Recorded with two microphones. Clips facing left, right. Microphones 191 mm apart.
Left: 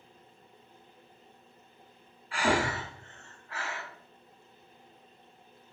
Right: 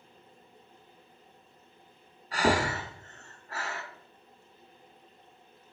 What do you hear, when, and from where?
2.3 s breathing: 40° right (ahead or behind), 0.8 m